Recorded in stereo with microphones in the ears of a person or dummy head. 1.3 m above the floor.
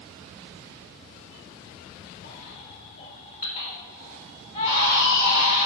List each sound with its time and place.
2.2 s a baby crying: 40° left (ahead or behind), 1.6 m